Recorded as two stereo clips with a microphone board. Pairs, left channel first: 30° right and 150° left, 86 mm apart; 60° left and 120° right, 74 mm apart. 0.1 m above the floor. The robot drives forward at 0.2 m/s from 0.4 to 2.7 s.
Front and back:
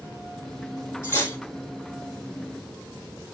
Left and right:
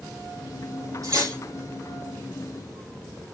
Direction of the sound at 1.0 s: 85° right.